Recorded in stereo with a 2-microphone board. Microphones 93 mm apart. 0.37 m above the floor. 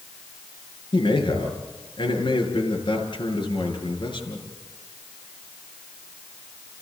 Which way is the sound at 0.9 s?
55° left (ahead or behind).